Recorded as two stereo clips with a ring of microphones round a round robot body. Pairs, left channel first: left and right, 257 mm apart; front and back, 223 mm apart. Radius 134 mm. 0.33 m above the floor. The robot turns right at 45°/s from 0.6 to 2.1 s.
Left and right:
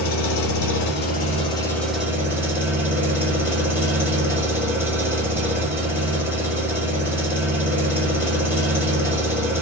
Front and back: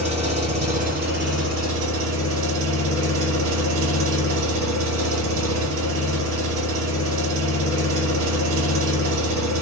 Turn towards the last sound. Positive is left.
turn(degrees=-170)